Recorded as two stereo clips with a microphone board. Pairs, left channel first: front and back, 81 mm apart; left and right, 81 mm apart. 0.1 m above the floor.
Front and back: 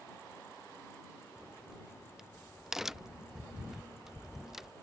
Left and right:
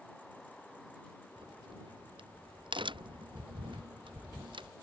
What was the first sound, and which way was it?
A crack, 95° right.